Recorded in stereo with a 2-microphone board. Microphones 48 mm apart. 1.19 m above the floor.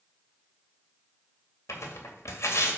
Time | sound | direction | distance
1.7 | tearing paper | 70° left (ahead or behind) | 2 m